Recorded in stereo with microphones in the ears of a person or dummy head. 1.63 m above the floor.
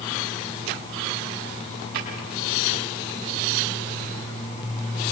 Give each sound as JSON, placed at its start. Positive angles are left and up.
{"t": 1.9, "sound": "a drawer", "side_deg": -55, "distance_m": 5.5}